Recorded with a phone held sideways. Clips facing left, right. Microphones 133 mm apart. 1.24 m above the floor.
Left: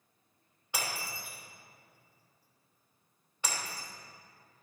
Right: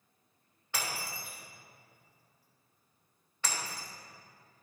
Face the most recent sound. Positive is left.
turn(degrees=15)  # may be behind; listen again after turning